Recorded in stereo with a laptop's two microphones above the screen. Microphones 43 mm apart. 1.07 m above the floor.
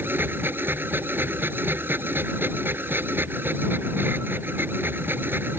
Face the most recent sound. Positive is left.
turn(degrees=-55)  # may be behind; listen again after turning